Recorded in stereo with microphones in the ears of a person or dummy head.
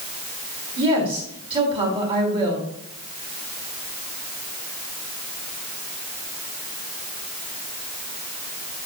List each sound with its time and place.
0.8 s a woman speaking: 35° right (ahead or behind), 4 m